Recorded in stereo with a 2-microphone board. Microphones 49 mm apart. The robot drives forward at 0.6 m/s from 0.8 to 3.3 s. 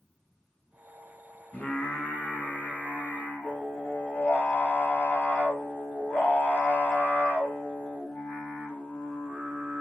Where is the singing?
35° left (ahead or behind), 2.5 m; by 9.8 s 25° left (ahead or behind), 3.5 m.